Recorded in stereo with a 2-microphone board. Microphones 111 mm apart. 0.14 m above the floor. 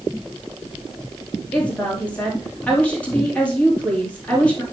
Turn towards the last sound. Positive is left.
turn(degrees=15)  # may be behind; listen again after turning